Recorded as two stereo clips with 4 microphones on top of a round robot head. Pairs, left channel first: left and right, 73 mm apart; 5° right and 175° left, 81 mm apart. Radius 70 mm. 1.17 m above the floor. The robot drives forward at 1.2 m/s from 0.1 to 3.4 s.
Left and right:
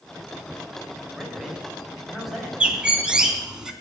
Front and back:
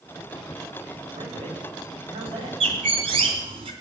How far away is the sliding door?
No sliding door in this recording.